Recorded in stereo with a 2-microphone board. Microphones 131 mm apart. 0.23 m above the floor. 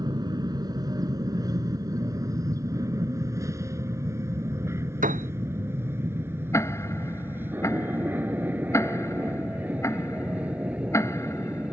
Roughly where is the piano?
Right.